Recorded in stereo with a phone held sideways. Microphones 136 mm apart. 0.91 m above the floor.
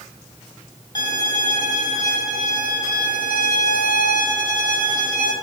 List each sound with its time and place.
0.9 s a violin: 30° left (ahead or behind), 2.0 m